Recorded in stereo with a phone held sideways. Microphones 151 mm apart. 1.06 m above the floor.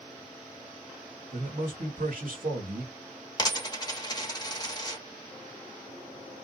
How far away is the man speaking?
About 1.8 m.